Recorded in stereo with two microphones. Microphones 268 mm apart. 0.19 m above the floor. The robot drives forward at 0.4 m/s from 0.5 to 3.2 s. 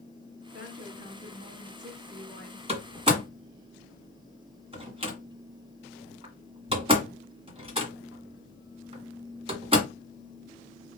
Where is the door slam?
20° right (ahead or behind), 1.3 m.